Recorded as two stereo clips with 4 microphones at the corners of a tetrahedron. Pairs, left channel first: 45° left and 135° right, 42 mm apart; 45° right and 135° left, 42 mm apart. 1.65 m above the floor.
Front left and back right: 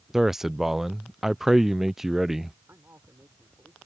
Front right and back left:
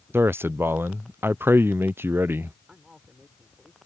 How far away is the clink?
I don't hear a clink.